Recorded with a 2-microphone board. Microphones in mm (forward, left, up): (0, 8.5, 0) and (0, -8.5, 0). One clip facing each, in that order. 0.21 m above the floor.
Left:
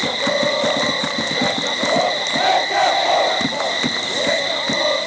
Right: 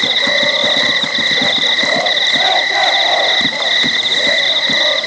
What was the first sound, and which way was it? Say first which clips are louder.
An insect: right 6 dB; 55° right (ahead or behind).